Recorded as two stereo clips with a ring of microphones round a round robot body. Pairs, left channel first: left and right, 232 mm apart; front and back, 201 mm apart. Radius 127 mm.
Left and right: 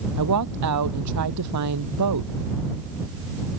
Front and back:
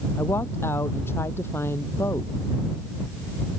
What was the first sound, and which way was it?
A woman speaking, 80° right.